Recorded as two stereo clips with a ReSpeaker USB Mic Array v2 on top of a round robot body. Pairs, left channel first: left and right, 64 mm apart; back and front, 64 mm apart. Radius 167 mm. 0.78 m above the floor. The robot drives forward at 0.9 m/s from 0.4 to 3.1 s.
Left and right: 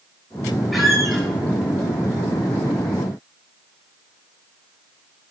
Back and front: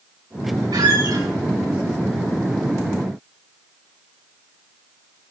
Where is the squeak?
Straight ahead, 5 m.